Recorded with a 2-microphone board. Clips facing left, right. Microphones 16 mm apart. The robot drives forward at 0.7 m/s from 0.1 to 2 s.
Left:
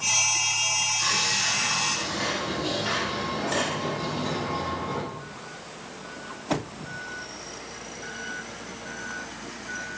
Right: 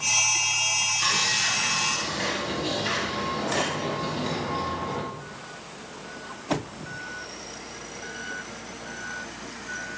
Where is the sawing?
40° right (ahead or behind), 0.6 m; by 5.0 s 20° right (ahead or behind), 1.1 m.